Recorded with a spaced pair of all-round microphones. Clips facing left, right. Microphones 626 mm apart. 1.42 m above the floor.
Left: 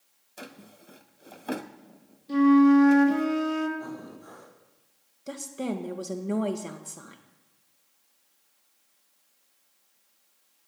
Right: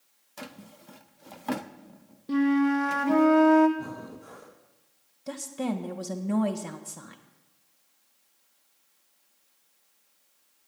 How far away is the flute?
About 1.5 m.